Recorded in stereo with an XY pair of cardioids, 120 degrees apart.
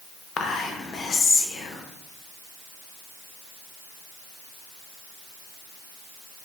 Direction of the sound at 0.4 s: 50° left.